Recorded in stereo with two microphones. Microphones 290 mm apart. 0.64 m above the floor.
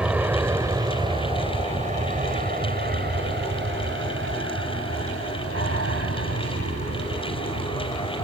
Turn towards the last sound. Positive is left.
turn(degrees=-65)  # may be behind; listen again after turning